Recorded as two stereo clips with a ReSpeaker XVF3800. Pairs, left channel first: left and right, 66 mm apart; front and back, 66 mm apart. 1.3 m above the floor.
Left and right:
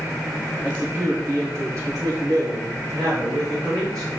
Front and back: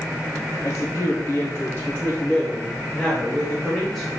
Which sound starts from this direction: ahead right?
A woman speaking, at 0.6 s.